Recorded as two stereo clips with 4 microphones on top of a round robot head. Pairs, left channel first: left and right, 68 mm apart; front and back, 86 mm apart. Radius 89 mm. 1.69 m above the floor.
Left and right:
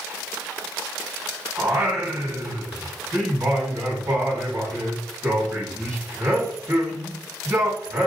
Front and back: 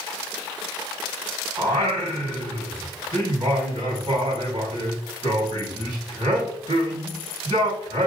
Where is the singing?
140° right, 1.5 m.